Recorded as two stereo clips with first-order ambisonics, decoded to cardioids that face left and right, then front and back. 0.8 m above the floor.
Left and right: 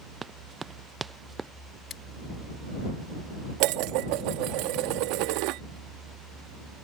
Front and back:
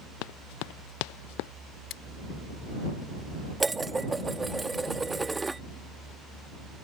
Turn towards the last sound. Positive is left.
turn(degrees=-100)